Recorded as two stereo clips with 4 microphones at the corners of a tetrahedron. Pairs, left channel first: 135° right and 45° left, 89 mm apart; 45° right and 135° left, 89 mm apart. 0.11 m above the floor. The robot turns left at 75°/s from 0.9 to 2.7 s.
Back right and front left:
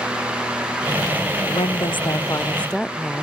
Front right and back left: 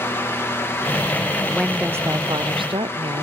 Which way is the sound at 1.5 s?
125° right.